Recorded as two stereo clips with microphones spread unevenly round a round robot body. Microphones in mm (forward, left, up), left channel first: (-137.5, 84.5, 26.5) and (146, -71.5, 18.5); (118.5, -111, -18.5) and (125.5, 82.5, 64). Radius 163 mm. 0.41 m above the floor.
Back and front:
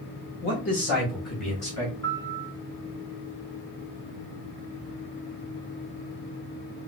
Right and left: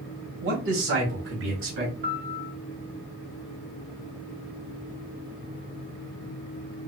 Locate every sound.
0.4 s a man speaking: 115° left, 1.8 m; by 1.9 s 80° left, 2 m
2.0 s a piano: 85° left, 0.7 m